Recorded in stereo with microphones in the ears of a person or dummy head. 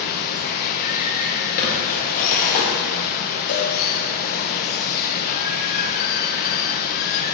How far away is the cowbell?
About 1.7 m.